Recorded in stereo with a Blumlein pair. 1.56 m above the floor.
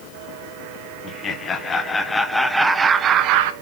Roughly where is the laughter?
Ahead left.